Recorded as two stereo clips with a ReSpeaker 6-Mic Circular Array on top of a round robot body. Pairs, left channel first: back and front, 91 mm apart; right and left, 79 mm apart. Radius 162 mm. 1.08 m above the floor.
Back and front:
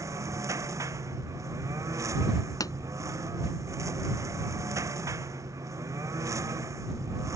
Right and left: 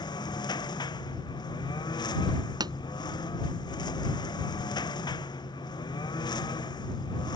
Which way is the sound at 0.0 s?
60° right.